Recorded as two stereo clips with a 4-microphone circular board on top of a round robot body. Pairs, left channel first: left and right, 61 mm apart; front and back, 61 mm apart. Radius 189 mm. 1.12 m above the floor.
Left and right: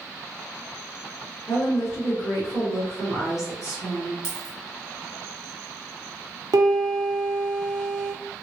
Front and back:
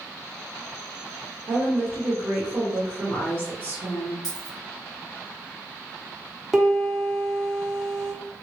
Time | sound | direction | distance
1.5 | a woman speaking | 125° left | 1.7 m
4.2 | a dropped coin | 20° right | 1.1 m
6.5 | a piano | 95° right | 0.7 m